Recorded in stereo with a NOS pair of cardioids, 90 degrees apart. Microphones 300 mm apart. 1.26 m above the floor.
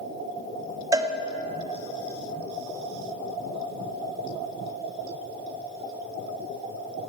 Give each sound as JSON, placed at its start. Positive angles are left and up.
{"t": 0.9, "sound": "a cowbell", "azimuth_deg": -15, "distance_m": 0.6}